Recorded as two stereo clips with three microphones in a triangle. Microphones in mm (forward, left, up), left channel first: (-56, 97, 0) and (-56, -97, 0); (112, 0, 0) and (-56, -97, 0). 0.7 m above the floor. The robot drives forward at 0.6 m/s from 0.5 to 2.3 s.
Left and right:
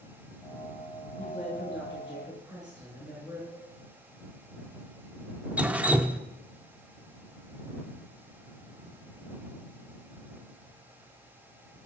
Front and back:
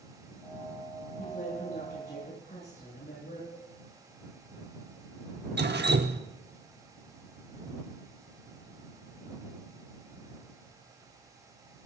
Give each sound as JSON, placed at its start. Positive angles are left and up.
{"t": 1.2, "sound": "a woman speaking", "azimuth_deg": -5, "distance_m": 10.0}
{"t": 3.5, "sound": "a cowbell", "azimuth_deg": 5, "distance_m": 8.0}
{"t": 5.6, "sound": "dripping", "azimuth_deg": -175, "distance_m": 1.0}